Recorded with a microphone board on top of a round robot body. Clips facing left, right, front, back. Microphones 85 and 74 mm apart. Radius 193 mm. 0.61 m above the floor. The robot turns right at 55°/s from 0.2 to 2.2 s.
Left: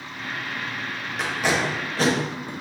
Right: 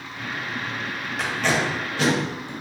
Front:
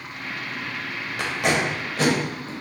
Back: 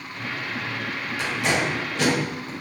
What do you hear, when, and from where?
1.2 s tape being pulled: straight ahead, 1.2 m; by 2.5 s 55° left, 1.2 m